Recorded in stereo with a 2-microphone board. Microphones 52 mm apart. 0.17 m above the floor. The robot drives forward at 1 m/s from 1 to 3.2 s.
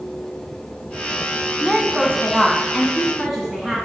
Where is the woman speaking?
5° right (ahead or behind), 1.2 m.